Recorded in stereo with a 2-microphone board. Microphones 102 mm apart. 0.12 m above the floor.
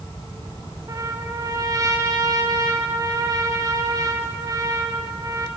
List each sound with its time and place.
0.9 s a trumpet: 35° right (ahead or behind), 4 m